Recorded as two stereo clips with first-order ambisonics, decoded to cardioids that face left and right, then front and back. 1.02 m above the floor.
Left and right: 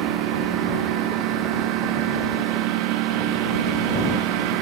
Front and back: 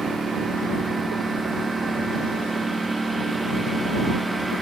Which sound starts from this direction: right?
A lawn mower, at 0.0 s.